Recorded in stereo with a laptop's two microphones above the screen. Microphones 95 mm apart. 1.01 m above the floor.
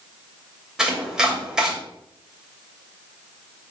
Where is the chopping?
5° right (ahead or behind), 2.5 m.